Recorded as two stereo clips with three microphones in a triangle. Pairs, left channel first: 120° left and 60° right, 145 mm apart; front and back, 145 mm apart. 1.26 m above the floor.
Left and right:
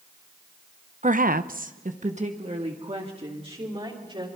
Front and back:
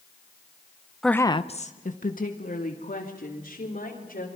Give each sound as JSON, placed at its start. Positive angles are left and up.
{"t": 1.0, "sound": "a woman speaking", "azimuth_deg": -90, "distance_m": 0.7}